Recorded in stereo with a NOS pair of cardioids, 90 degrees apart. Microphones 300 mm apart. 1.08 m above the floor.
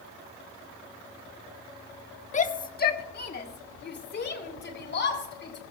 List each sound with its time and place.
2.3 s a shout: 25° left, 1.1 m; by 5.6 s 40° left, 5 m